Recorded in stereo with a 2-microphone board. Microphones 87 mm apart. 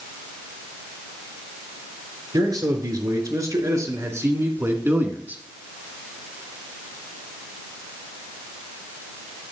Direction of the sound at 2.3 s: 50° right (ahead or behind).